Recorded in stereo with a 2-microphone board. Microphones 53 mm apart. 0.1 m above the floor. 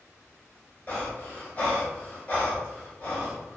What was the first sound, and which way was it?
Breathing, 30° left (ahead or behind).